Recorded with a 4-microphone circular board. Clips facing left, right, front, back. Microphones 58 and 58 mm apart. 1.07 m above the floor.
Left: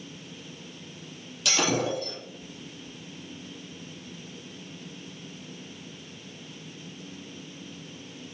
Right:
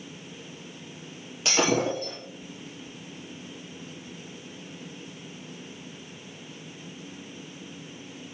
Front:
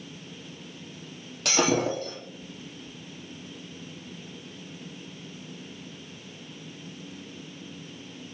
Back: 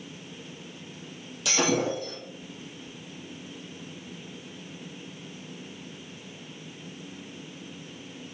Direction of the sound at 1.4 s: 35° right.